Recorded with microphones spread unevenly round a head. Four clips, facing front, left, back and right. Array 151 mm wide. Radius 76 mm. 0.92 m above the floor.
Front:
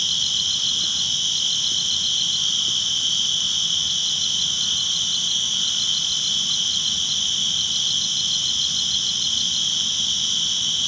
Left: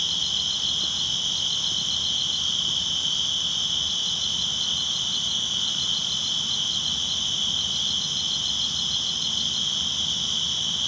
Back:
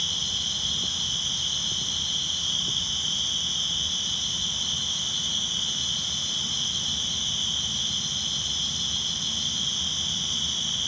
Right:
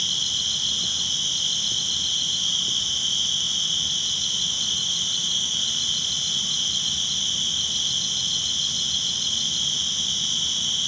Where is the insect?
10° right, 2 m.